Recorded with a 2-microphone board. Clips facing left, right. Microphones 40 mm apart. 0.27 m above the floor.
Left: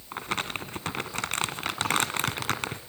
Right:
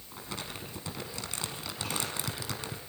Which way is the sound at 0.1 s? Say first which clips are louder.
Left 9 dB; 65° left (ahead or behind).